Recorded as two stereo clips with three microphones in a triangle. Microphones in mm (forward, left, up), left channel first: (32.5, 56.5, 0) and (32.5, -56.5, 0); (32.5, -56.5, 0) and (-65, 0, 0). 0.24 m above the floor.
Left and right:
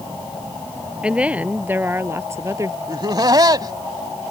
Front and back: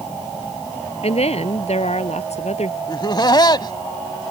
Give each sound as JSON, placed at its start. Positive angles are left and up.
{"t": 1.0, "sound": "a woman speaking", "azimuth_deg": -10}
{"t": 2.9, "sound": "laughter", "azimuth_deg": -55}